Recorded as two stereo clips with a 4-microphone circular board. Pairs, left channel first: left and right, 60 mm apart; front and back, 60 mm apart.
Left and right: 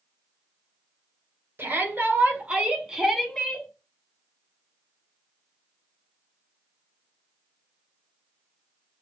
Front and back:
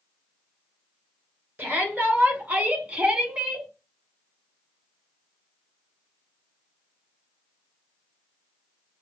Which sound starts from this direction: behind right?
A shout, at 1.6 s.